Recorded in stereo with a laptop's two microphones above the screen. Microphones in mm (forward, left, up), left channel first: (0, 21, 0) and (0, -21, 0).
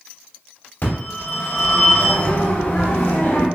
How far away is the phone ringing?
About 2.5 m.